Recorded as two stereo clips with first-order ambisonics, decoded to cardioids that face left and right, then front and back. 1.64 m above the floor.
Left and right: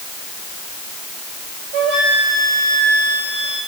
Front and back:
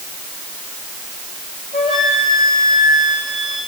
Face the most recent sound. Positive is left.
turn(degrees=-105)